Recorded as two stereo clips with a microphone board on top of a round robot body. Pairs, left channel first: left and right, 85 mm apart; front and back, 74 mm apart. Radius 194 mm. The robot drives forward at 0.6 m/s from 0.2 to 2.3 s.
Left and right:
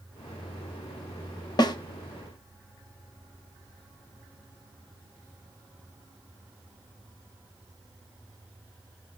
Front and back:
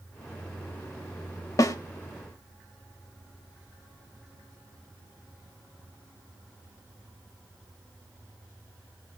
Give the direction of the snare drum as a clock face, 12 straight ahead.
10 o'clock.